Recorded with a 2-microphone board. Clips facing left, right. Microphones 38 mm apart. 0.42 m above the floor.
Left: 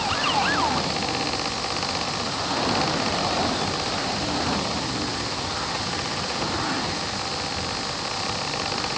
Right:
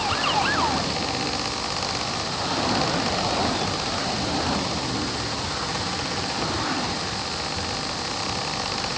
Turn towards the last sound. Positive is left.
No sound to turn to.